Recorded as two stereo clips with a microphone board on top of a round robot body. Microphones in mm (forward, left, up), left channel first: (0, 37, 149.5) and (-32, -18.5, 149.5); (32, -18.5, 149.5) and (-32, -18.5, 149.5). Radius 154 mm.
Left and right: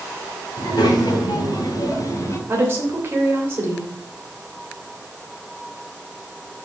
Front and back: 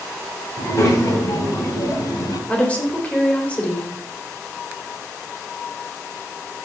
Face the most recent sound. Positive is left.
turn(degrees=-65)